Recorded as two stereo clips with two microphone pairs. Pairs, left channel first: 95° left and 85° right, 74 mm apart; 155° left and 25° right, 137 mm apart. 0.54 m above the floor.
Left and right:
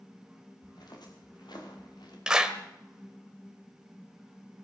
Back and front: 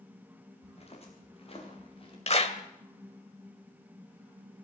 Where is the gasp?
I don't hear a gasp.